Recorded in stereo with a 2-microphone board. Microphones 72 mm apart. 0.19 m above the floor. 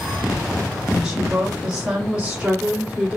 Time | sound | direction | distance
0.9 | a woman speaking | 10° right (ahead or behind) | 8.5 m